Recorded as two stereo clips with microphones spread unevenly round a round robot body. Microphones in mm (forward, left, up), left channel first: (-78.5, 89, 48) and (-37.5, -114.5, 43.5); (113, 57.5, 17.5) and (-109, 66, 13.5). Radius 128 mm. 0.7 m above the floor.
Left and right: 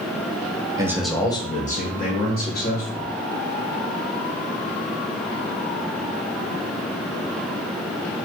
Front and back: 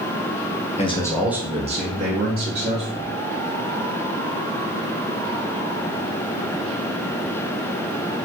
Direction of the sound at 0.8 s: 25° right.